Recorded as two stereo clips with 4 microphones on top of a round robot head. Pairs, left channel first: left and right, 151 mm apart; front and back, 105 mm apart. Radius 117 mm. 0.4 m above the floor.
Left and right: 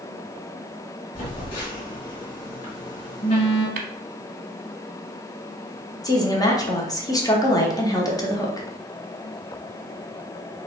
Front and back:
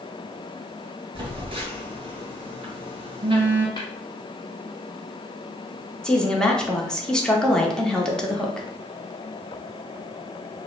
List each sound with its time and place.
1.1 s a phone buzzing: 145° left, 2 m
3.8 s tapping: 65° right, 0.6 m
6.0 s a woman speaking: 75° left, 1.1 m